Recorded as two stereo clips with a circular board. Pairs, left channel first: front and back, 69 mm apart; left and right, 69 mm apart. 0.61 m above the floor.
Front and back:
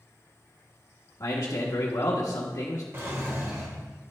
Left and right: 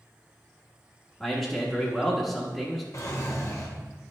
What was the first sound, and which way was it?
A man speaking, 5° left.